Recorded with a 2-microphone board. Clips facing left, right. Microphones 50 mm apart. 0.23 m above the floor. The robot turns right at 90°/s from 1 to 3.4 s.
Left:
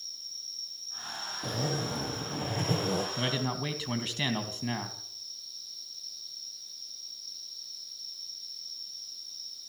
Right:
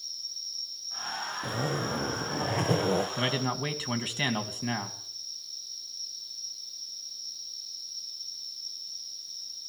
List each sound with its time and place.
0.0 s an insect: 155° left, 5 m; by 9.7 s 10° left, 5 m
1.4 s a zipper: 175° right, 2.5 m; by 3.1 s 30° right, 2.5 m
3.2 s a man speaking: 30° right (ahead or behind), 2.5 m; by 5.0 s 15° right (ahead or behind), 2.5 m